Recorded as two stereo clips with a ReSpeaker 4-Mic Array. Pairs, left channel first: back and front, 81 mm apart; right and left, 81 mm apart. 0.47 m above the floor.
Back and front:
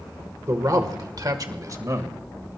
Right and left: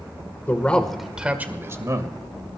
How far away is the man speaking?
About 1.7 m.